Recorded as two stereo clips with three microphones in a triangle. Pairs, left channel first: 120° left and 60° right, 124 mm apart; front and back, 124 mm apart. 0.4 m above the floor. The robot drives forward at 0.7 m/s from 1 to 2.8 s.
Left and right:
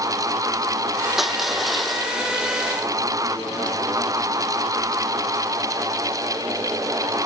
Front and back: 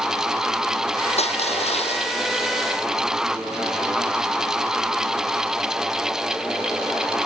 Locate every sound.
1.2 s crushing: 30° left